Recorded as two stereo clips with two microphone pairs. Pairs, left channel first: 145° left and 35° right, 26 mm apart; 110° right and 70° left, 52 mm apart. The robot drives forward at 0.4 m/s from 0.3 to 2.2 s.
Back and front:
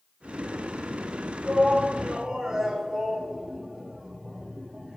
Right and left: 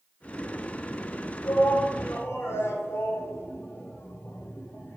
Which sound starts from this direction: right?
A shout, at 1.4 s.